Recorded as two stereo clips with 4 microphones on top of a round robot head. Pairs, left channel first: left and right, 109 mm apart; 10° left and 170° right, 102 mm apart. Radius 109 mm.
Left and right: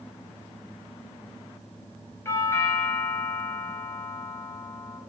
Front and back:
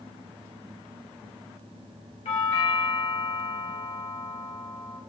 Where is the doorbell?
25° left, 5 m.